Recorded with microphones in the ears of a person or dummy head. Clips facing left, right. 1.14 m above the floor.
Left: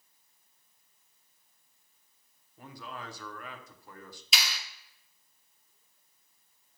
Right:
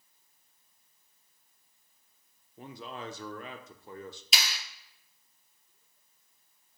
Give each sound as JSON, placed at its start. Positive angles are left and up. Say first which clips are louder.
{"t": 2.6, "sound": "a man speaking", "louder": "right 3 dB", "side_deg": -15, "distance_m": 0.8}
{"t": 4.3, "sound": "a clap", "louder": "left 1 dB", "side_deg": -40, "distance_m": 2.0}